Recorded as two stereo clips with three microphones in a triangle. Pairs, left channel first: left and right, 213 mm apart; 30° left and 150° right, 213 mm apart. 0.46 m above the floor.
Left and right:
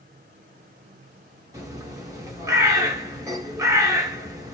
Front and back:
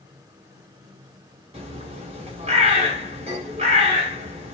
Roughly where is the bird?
Behind right.